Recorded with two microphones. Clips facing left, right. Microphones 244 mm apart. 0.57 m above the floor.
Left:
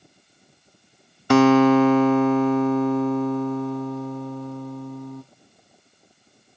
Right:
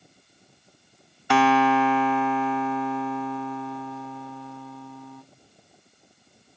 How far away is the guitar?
About 0.7 m.